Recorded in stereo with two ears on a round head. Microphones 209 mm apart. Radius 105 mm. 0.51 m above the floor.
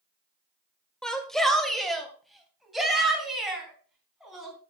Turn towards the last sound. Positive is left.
turn(degrees=0)  # may be behind; listen again after turning